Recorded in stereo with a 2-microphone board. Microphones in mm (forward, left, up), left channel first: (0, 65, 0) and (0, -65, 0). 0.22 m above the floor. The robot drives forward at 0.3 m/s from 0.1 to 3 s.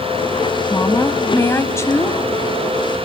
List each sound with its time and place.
0.7 s a woman speaking: 25° left (ahead or behind), 1.0 m; by 2.2 s 20° left (ahead or behind), 1.1 m